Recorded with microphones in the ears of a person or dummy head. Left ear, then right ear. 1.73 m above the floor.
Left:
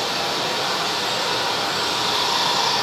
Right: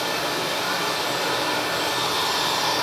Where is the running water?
30° left (ahead or behind), 1.9 m.